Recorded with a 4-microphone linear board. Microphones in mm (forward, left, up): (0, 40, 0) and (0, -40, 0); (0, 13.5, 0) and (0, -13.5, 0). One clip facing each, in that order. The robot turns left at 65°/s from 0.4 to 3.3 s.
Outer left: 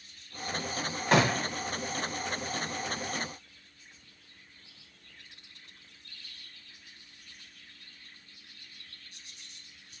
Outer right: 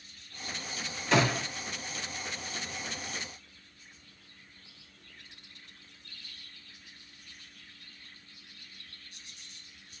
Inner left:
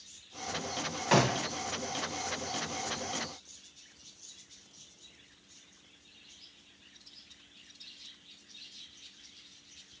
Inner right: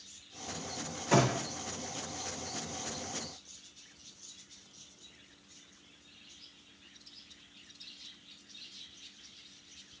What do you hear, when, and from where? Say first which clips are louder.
1.1 s a gunshot: outer left 2 dB, inner left 1 dB; 50° left (ahead or behind), 1.1 m; by 1.5 s 35° left (ahead or behind), 1.1 m